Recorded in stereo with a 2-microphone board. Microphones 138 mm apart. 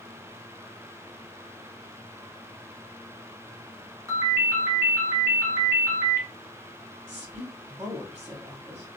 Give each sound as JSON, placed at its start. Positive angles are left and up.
{"t": 4.1, "sound": "a ringtone", "side_deg": -20, "distance_m": 1.4}
{"t": 7.1, "sound": "a woman speaking", "side_deg": -50, "distance_m": 2.0}